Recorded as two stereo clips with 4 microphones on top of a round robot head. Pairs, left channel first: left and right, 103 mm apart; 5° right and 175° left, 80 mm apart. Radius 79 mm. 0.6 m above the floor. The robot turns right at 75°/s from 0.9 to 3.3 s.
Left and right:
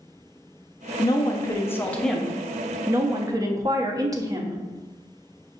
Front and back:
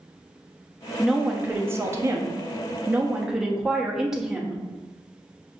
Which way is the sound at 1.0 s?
85° left.